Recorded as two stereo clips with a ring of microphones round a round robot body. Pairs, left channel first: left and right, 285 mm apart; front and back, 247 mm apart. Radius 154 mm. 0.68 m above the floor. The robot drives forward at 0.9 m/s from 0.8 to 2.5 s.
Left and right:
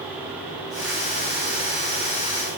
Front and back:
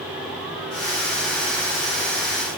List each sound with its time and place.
Only background noise.